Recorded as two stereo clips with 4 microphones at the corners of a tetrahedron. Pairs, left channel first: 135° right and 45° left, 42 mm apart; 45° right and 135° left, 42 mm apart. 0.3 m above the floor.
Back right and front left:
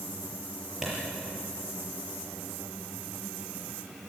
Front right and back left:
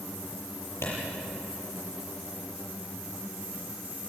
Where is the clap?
35° right, 7 m.